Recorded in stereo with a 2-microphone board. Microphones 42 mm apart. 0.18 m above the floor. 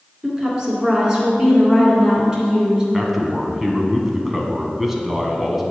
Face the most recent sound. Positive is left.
turn(degrees=-10)  # may be behind; listen again after turning